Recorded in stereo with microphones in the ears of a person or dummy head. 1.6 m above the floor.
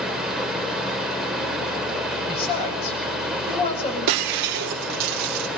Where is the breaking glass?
45° right (ahead or behind), 1.7 m.